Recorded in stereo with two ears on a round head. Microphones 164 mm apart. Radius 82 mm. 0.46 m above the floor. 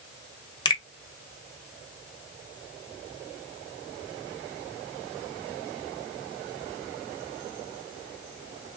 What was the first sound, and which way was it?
A finger snap, 25° left (ahead or behind).